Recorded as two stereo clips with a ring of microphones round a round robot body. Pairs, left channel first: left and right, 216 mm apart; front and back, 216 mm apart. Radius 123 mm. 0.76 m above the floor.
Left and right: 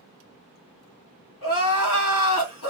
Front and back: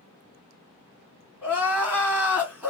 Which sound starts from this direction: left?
Crying, at 1.4 s.